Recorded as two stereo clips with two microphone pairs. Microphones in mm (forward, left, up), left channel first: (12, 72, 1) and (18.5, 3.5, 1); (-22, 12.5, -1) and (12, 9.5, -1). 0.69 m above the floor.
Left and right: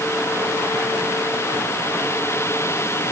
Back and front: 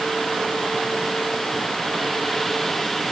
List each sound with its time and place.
Only background noise.